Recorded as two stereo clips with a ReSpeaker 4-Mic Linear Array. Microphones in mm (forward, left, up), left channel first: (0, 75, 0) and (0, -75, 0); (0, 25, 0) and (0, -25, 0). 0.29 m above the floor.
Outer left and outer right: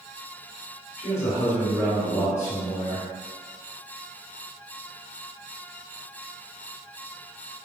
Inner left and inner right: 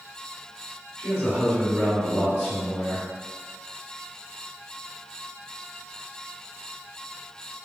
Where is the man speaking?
20° left (ahead or behind), 0.9 m.